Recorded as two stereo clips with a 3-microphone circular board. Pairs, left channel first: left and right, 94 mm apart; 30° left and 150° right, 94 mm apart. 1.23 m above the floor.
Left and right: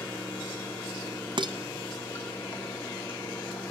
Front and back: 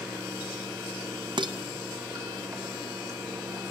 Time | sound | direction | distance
0.0 | running water | 160° left | 3 m
1.4 | dishes clattering | 120° right | 0.6 m